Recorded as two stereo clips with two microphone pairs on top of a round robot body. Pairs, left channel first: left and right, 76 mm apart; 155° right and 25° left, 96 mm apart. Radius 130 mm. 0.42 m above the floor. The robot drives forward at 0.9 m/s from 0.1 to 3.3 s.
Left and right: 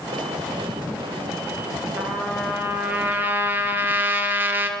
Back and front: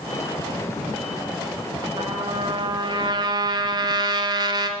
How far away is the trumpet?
About 3.5 m.